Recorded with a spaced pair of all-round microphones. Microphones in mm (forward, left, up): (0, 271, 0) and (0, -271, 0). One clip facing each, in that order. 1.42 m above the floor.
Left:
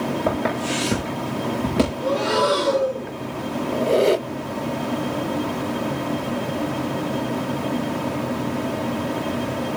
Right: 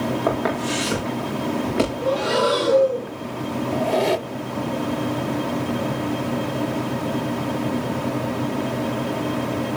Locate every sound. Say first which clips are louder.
0.3 s footsteps: right 1 dB; 50° left (ahead or behind), 6.5 m; by 1.9 s 55° left (ahead or behind), 6.5 m
2.0 s breathing: even; 65° left (ahead or behind), 7 m
3.7 s a squeak: left 5 dB; 15° right (ahead or behind), 0.5 m